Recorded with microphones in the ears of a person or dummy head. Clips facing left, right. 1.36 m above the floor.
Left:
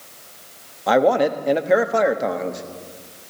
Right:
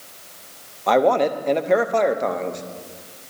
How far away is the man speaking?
About 0.6 m.